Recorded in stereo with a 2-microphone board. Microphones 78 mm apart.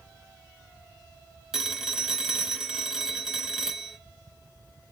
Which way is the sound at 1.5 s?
5° right (ahead or behind).